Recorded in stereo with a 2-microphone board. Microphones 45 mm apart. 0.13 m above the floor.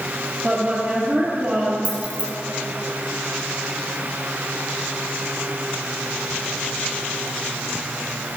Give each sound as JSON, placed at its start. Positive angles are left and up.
{"t": 0.4, "sound": "a woman speaking", "side_deg": -20, "distance_m": 3.0}
{"t": 1.9, "sound": "keys jangling", "side_deg": -25, "distance_m": 1.6}